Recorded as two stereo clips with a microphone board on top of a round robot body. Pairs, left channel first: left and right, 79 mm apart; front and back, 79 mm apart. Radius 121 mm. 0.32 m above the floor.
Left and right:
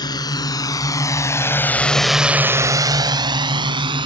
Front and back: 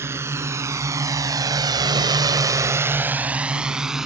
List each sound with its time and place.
0.0 s a drone: 125° left; by 4.1 s 95° right